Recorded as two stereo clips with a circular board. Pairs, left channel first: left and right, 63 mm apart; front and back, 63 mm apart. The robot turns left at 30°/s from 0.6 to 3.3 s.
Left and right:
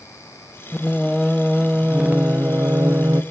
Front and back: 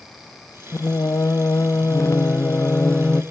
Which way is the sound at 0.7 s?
15° left.